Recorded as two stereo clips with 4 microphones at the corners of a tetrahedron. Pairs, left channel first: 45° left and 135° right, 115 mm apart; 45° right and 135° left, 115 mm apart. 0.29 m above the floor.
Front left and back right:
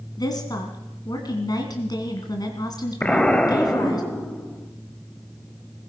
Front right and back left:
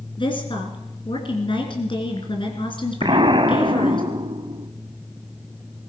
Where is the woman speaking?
5° right, 2.5 m.